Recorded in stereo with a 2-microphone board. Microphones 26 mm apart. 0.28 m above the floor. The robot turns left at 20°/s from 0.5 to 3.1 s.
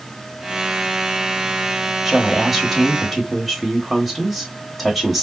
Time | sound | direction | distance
2.0 | a woman speaking | 5° right (ahead or behind) | 1.0 m